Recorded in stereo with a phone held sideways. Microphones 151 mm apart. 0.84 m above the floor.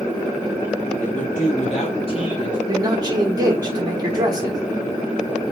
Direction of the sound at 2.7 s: 25° right (ahead or behind).